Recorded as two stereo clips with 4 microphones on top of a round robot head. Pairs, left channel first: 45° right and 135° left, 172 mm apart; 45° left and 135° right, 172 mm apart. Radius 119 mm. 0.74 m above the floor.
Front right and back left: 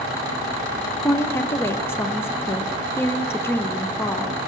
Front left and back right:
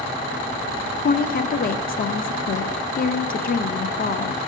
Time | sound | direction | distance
1.0 | a woman speaking | 30° left | 0.6 m